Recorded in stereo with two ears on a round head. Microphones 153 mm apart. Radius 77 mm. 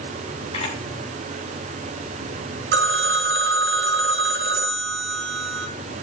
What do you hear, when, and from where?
0.5 s a camera shutter: 35° left (ahead or behind), 4.5 m
2.7 s a phone ringing: 70° right (ahead or behind), 1.3 m